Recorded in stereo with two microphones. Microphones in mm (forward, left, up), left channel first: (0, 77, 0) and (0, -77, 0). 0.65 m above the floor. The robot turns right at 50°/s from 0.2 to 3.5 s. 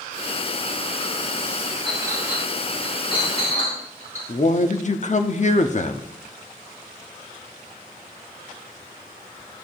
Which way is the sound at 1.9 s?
35° right (ahead or behind).